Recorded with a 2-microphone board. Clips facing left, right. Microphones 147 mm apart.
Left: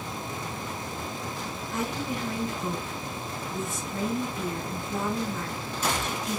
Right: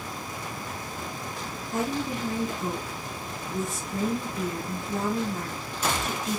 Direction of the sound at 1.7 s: 40° right (ahead or behind).